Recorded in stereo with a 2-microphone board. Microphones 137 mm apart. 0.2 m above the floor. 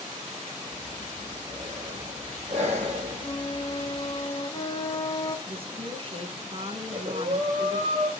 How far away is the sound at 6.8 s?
About 3 m.